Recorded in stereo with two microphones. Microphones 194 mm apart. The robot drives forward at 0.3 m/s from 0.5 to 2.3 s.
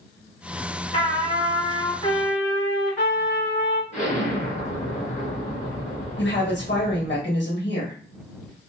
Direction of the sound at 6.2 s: 65° left (ahead or behind).